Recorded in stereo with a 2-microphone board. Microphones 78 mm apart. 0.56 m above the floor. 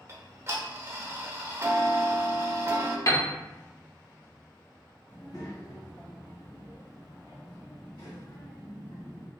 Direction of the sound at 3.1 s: 40° left (ahead or behind).